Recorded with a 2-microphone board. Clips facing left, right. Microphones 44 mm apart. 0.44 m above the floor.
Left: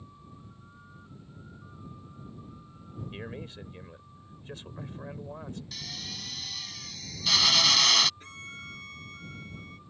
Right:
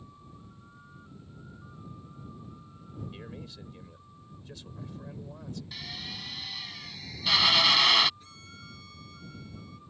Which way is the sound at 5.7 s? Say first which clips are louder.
Right 1 dB; 15° right (ahead or behind).